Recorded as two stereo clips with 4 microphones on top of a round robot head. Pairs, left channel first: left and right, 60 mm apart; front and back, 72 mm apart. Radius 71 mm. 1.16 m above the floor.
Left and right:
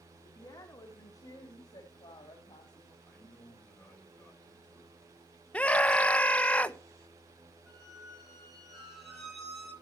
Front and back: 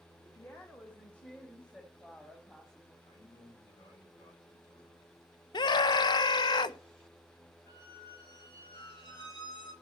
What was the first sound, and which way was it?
A woman speaking, 60° left.